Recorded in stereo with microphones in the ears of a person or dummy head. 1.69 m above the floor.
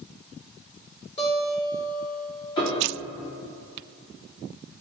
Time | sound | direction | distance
1.2 | a guitar | 35° left (ahead or behind) | 4 m
2.6 | a piano | 35° left (ahead or behind) | 2 m